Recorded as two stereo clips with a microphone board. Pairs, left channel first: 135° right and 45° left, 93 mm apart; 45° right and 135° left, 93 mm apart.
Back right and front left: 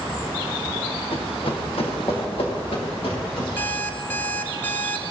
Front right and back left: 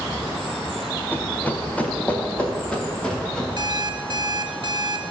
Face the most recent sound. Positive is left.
turn(degrees=160)